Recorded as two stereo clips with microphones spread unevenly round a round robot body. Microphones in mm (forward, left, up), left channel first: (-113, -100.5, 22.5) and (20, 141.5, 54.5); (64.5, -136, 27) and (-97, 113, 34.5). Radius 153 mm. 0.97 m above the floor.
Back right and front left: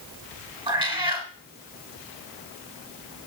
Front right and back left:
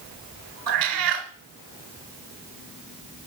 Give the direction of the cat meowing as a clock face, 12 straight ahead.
8 o'clock.